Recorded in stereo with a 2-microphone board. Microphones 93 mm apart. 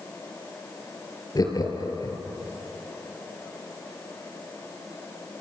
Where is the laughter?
45° left (ahead or behind), 4 m.